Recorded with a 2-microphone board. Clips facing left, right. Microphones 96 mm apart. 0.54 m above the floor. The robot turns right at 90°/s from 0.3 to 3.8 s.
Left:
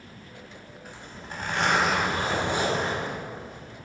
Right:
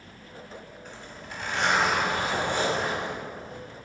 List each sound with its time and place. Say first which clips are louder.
0.8 s a zipper: left 1 dB; 5° left, 1.7 m; by 3.6 s 100° right, 1.7 m